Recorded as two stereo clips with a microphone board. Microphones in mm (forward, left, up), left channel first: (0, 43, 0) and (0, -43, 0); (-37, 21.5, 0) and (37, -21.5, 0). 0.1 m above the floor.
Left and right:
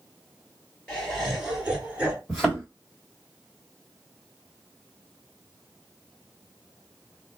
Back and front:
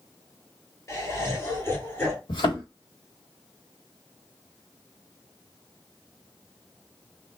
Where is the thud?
175° left, 1.5 m.